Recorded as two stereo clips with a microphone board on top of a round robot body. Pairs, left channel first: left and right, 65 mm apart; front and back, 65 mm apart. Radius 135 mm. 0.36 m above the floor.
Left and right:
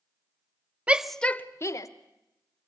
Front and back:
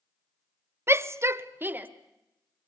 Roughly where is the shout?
Behind right.